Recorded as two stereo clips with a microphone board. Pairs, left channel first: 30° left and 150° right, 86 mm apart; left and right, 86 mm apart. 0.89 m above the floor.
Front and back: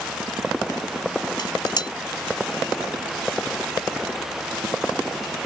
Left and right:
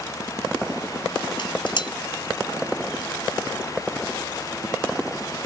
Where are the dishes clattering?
65° left.